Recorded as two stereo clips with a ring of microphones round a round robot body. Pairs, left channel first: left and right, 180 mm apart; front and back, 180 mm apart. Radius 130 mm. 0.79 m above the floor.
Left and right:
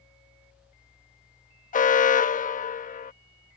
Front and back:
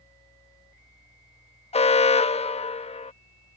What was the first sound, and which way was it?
An alarm, 50° left.